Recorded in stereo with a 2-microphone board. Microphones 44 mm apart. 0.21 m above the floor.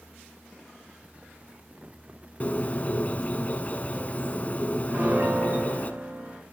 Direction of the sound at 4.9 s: 40° right (ahead or behind).